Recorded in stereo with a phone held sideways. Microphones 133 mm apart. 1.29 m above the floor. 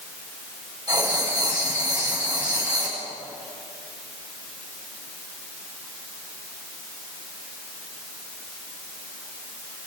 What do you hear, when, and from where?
0.9 s writing: 30° right (ahead or behind), 9 m